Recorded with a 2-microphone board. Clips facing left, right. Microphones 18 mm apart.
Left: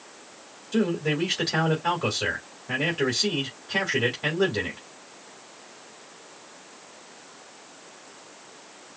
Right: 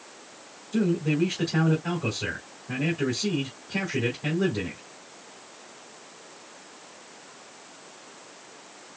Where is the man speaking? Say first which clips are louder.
Even; 65° left (ahead or behind), 3 m.